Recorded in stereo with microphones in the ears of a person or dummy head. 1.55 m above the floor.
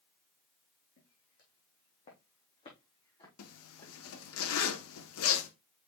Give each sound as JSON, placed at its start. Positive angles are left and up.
{"t": 1.0, "sound": "footsteps", "side_deg": 50, "distance_m": 3.5}
{"t": 3.4, "sound": "a zipper", "side_deg": 80, "distance_m": 1.4}